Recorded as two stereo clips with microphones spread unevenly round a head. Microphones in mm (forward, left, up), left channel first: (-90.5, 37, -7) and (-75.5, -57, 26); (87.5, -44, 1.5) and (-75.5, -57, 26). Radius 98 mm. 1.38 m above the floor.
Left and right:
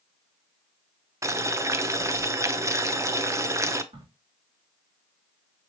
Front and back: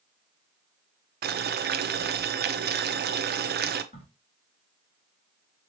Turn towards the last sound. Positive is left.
turn(degrees=-45)